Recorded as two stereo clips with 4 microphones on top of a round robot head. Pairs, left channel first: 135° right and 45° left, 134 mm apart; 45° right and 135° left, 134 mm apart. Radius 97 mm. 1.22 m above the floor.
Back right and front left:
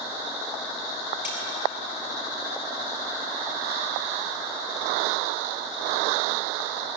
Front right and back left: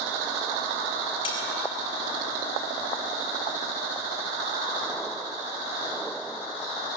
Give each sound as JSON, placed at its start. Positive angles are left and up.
{"t": 1.2, "sound": "cutlery clinking", "azimuth_deg": -100, "distance_m": 7.0}